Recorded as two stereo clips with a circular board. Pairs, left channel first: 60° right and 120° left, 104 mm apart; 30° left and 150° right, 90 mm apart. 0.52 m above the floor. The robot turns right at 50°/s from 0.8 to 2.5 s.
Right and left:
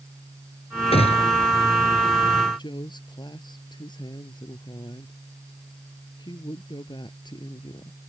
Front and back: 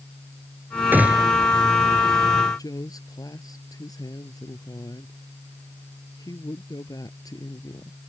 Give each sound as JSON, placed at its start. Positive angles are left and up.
{"t": 0.9, "sound": "a gunshot", "azimuth_deg": -80}
{"t": 2.6, "sound": "a woman speaking", "azimuth_deg": -15}